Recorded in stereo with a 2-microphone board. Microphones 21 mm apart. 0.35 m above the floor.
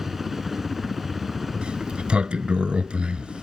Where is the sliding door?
60° right (ahead or behind).